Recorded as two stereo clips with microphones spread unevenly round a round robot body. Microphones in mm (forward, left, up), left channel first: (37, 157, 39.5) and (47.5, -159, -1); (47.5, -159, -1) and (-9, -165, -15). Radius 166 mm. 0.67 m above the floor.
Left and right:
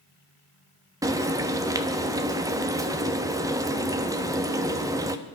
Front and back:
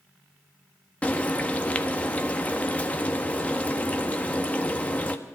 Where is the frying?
55° right, 0.8 m.